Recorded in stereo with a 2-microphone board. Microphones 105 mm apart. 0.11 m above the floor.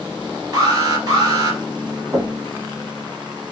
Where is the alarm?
35° right (ahead or behind), 2.5 m.